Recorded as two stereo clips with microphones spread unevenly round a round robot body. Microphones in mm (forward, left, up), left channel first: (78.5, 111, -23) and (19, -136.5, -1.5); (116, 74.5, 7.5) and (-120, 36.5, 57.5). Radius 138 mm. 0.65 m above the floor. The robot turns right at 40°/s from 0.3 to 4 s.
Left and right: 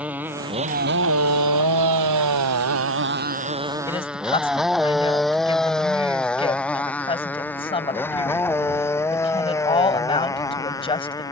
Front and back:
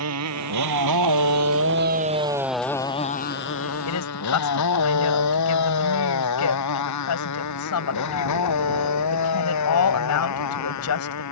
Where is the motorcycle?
170° left; by 11.3 s straight ahead.